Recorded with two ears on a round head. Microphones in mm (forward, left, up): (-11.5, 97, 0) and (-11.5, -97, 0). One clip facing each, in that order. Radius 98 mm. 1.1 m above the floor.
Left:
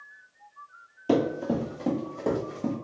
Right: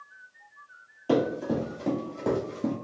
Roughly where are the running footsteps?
Left.